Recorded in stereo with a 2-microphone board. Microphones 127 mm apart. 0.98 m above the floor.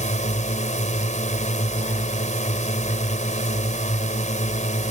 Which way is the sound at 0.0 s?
65° left (ahead or behind).